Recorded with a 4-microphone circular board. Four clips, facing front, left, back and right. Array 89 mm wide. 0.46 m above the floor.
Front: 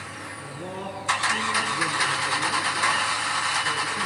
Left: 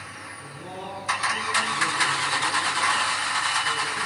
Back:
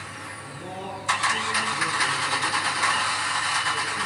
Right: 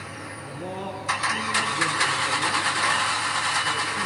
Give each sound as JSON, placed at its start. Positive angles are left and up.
{"t": 0.4, "sound": "a man speaking", "azimuth_deg": -20, "distance_m": 6.0}